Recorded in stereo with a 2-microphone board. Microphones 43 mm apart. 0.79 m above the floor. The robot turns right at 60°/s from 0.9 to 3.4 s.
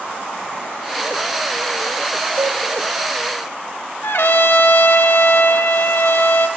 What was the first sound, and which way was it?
A cowbell, 80° right.